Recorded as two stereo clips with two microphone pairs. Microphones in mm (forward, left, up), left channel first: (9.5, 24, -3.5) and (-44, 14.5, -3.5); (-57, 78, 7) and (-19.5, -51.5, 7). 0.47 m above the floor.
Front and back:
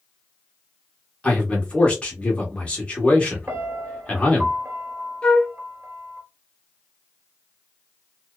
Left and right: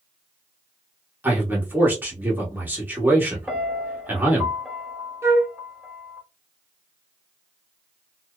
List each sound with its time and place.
1.2 s a man speaking: 15° right, 1.0 m
3.5 s a piano: 165° right, 1.0 m
5.2 s a flute: 25° right, 0.6 m